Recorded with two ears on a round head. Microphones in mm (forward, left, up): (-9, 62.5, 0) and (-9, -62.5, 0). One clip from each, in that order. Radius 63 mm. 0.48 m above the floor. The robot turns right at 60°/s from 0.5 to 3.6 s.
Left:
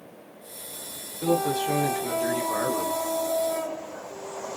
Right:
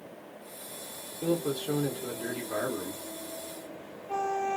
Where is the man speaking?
100° left, 0.8 m; by 3.0 s 155° right, 0.8 m.